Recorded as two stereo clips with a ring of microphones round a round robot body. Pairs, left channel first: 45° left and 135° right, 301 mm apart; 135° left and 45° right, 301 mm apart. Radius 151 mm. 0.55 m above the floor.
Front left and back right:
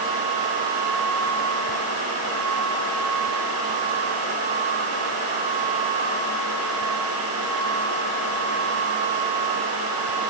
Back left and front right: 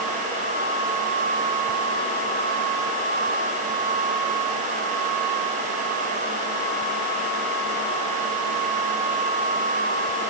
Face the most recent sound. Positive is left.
No sound to turn to.